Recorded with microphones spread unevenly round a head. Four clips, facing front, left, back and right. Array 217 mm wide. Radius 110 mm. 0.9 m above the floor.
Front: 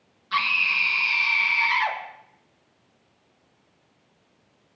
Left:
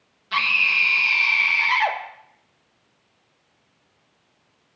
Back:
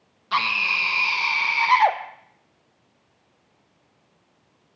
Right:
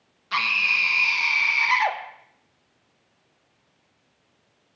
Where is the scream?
170° left, 1.2 m.